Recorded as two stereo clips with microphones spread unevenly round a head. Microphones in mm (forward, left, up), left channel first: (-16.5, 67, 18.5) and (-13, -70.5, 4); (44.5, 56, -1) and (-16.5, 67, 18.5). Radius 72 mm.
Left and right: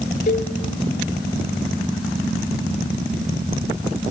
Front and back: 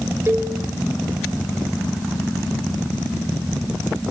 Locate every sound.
0.3 s a cowbell: 125° left, 3.5 m